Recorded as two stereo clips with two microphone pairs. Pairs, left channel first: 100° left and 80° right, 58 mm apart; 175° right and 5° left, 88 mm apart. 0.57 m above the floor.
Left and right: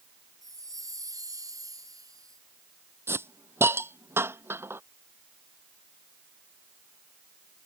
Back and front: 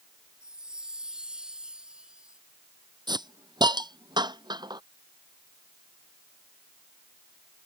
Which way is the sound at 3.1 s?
30° right.